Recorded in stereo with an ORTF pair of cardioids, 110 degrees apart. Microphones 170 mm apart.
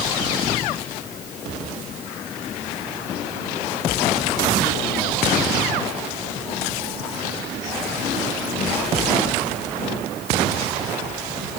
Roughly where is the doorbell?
No doorbell in this recording.